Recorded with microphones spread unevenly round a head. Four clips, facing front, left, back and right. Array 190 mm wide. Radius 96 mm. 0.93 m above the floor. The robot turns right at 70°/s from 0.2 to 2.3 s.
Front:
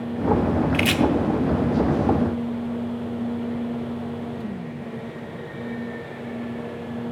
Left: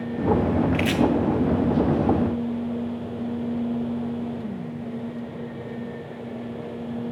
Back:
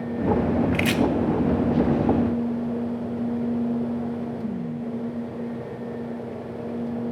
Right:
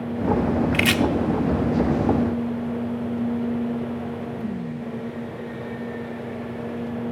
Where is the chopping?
120° right, 0.5 m; by 1.0 s 100° right, 0.5 m.